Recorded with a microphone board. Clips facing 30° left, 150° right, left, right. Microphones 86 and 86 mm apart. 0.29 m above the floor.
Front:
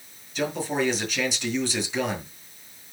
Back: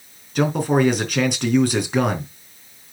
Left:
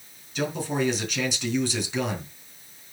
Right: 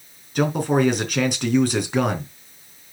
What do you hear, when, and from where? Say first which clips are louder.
0.3 s a man speaking: back 8 dB, right 7 dB; 125° right, 4 m